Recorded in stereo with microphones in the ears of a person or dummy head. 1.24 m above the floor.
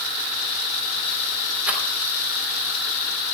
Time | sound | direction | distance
1.7 | a rattle | centre (ahead or behind) | 3.5 m